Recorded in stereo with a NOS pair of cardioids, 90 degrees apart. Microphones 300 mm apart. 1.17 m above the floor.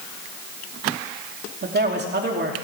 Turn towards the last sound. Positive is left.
turn(degrees=-35)